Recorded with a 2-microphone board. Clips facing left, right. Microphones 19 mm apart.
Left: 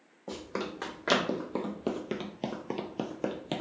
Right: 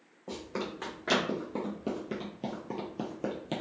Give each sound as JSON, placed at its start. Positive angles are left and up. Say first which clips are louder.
{"t": 0.3, "sound": "running footsteps", "louder": "left 1 dB", "side_deg": 15, "distance_m": 1.4}